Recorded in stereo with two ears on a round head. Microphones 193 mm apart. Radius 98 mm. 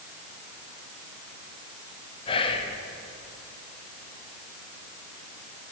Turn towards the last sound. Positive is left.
turn(degrees=25)  # may be behind; listen again after turning